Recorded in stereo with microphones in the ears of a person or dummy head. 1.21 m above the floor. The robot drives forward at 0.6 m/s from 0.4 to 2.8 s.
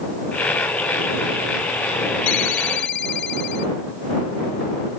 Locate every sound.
2.3 s a ringtone: 65° left (ahead or behind); by 3.7 s 60° left (ahead or behind)